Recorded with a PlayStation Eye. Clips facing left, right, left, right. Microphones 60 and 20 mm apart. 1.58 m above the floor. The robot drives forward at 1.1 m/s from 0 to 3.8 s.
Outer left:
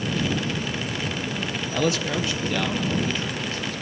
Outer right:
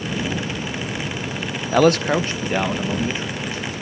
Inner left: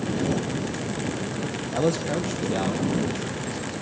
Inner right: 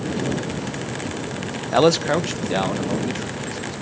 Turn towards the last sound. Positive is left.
turn(degrees=-20)  # may be behind; listen again after turning